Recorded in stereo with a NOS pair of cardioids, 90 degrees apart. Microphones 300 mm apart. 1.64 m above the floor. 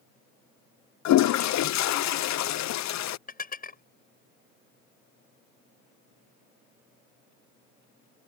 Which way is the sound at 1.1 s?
65° left.